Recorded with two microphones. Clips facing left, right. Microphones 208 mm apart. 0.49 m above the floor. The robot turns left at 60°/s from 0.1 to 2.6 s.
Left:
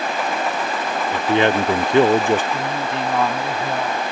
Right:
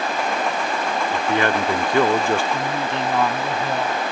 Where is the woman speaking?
5° left (ahead or behind); by 4.0 s centre (ahead or behind).